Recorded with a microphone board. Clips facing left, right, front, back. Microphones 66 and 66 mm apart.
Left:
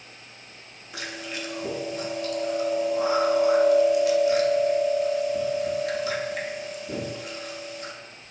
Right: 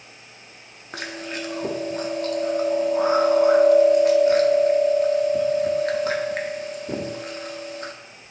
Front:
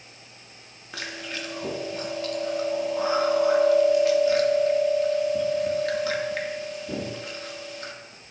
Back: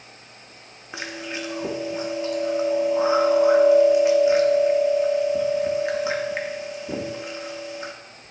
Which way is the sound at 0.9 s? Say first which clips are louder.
Right 3 dB, back 3 dB; 115° right.